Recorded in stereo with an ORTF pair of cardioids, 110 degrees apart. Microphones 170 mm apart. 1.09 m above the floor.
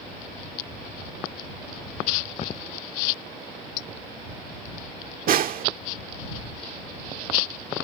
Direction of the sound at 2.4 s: 40° left.